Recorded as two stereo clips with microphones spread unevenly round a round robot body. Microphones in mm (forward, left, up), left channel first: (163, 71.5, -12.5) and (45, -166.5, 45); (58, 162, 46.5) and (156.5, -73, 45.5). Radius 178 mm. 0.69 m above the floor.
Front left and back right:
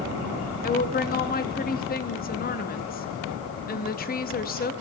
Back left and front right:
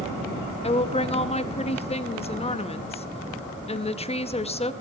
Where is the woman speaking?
55° left, 0.7 m.